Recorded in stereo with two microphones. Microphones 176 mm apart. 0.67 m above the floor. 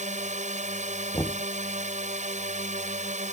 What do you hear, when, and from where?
0.0 s a drone: 40° right (ahead or behind)
1.1 s knocking: 15° left (ahead or behind)